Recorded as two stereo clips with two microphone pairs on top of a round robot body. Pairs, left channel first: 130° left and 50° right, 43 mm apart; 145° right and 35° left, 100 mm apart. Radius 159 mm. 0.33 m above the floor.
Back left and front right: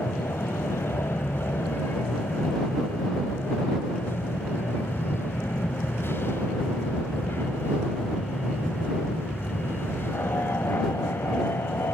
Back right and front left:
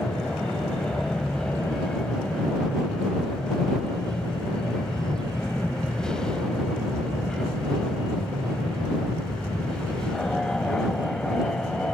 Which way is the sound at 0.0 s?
130° left.